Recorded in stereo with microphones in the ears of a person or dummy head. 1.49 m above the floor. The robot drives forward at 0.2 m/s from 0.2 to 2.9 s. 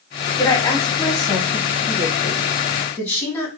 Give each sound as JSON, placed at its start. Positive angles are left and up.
{"t": 0.4, "sound": "a woman speaking", "side_deg": 20, "distance_m": 0.9}